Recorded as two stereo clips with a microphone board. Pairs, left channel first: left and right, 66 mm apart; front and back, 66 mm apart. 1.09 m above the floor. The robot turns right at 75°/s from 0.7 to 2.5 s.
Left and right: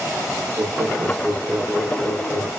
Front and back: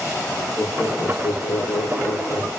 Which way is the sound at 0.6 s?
90° right.